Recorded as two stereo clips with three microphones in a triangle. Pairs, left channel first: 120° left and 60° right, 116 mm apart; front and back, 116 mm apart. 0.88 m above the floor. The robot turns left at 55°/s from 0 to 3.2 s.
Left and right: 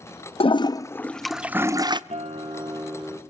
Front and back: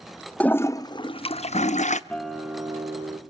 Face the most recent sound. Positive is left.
turn(degrees=-140)